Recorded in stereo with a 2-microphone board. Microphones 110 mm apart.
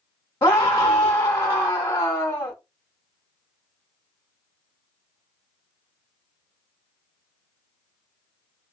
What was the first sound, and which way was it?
A scream, 30° left (ahead or behind).